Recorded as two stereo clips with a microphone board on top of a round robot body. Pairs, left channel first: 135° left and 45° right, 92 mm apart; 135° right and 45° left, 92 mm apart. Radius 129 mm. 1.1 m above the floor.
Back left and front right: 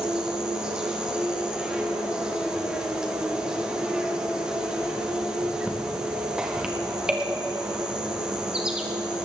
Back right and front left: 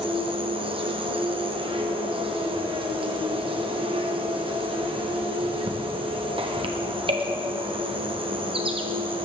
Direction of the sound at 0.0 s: 35° left.